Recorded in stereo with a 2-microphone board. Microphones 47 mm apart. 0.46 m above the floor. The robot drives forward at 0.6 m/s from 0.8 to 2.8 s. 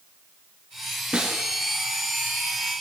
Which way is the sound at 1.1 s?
20° right (ahead or behind).